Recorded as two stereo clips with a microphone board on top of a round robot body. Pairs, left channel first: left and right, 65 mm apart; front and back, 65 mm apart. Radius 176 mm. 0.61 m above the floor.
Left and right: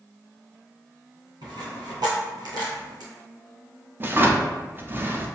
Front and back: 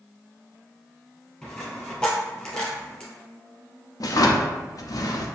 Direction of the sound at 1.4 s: 70° right.